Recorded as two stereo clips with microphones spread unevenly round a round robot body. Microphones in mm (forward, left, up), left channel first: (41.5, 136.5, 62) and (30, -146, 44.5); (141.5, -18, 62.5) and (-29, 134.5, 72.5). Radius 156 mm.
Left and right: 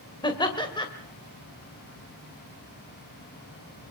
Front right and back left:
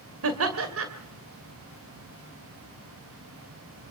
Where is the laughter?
165° left, 2 m.